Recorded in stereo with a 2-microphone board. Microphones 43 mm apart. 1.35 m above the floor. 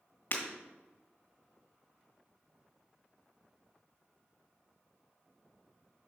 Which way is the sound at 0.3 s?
50° left (ahead or behind).